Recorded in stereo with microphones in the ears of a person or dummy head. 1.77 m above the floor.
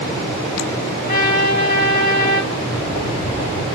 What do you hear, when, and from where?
1.1 s a trumpet: 55° left (ahead or behind), 2.5 m
2.5 s footsteps: 45° left (ahead or behind), 3 m; by 3.6 s 30° left (ahead or behind), 3.5 m